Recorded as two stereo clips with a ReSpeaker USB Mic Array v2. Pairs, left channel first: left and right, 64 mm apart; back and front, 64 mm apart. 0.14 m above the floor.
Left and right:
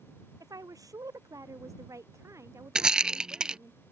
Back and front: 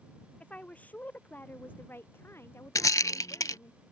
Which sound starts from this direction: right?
A woman speaking, at 0.4 s.